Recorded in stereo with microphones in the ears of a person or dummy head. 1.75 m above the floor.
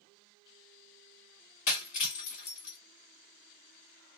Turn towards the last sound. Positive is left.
turn(degrees=35)  # may be behind; listen again after turning